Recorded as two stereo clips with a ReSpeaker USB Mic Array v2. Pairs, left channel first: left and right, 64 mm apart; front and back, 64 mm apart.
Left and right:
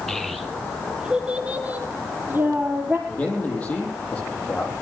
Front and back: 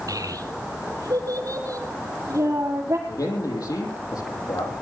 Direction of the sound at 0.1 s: 175° left.